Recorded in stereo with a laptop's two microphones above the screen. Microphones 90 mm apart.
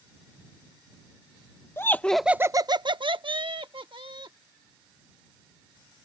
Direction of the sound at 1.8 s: 30° left (ahead or behind).